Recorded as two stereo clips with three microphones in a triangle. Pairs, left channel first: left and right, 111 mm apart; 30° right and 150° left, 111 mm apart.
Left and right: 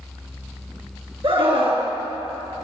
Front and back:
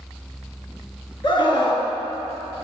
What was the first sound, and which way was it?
A scream, 60° right.